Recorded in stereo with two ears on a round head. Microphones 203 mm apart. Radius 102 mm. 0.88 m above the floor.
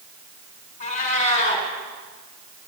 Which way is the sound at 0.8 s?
30° left (ahead or behind).